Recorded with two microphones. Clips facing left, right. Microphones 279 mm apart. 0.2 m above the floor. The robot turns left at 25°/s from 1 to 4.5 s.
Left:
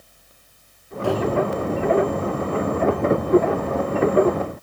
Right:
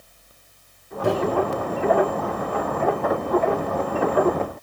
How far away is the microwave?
About 0.9 m.